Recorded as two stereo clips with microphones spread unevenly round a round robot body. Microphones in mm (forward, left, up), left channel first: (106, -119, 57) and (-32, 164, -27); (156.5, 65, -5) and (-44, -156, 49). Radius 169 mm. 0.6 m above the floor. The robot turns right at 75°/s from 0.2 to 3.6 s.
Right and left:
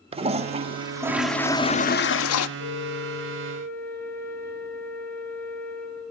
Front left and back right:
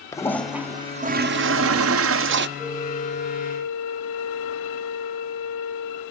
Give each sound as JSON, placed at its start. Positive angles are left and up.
{"t": 0.1, "sound": "a toilet flushing", "azimuth_deg": 100, "distance_m": 0.8}
{"t": 2.6, "sound": "a flute", "azimuth_deg": -55, "distance_m": 5.5}